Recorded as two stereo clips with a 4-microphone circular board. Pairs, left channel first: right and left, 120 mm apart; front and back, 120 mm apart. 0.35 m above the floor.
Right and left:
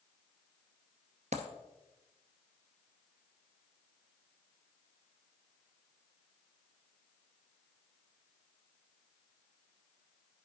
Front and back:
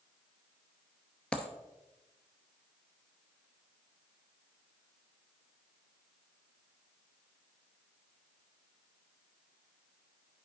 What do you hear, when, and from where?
1.3 s a dropped coin: 80° left, 0.8 m